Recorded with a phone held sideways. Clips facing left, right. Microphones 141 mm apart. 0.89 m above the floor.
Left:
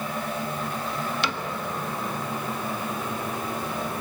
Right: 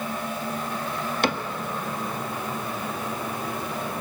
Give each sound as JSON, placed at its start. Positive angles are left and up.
{"t": 1.2, "sound": "a cupboard door", "side_deg": -50, "distance_m": 1.5}